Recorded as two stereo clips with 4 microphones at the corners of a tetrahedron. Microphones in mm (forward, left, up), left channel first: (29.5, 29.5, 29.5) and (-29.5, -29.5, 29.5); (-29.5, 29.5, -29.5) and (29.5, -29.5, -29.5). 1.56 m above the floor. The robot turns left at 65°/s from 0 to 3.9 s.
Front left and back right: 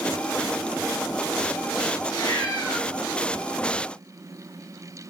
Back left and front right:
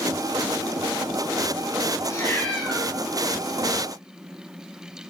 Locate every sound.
2.0 s a cat meowing: 85° left, 3 m; by 2.9 s 35° left, 3 m